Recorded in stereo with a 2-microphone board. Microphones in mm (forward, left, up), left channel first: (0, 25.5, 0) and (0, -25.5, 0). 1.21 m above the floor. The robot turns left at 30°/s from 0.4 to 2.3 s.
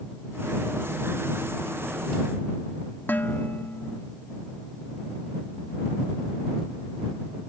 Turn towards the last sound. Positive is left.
turn(degrees=45)  # may be behind; listen again after turning